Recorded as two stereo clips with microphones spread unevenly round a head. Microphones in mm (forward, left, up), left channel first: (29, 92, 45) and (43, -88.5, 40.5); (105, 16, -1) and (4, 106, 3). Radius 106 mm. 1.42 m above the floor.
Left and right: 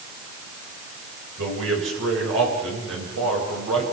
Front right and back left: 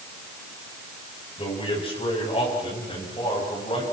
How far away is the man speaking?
About 8 m.